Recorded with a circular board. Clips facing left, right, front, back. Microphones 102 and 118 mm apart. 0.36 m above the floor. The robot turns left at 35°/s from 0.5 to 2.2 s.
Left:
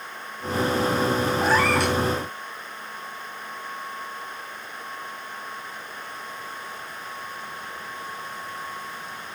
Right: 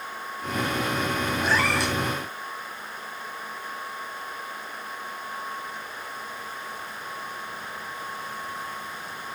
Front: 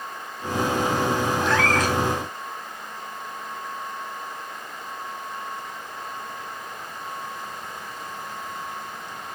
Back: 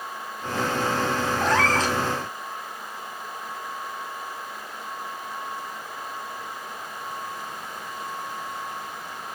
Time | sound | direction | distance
1.4 | a cat meowing | 135° left | 0.7 m